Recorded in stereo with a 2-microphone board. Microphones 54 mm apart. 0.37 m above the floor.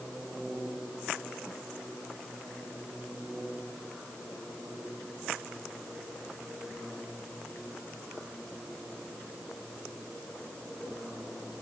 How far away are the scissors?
No scissors in this recording.